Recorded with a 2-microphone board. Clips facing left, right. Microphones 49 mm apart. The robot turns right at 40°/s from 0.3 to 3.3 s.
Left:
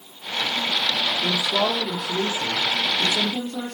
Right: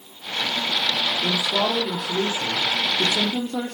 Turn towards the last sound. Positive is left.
turn(degrees=-120)